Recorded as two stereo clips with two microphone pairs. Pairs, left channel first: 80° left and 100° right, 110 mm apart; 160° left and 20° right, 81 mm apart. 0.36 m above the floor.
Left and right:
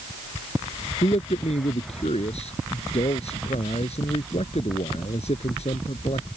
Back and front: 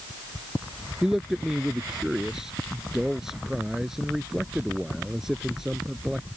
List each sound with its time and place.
1.0 s a man speaking: 65° left